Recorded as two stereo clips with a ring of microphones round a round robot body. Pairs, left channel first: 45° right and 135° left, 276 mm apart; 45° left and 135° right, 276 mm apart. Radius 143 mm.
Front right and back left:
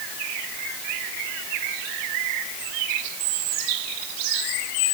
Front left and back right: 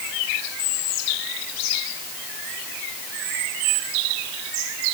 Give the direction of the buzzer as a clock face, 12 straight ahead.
I don't hear a buzzer.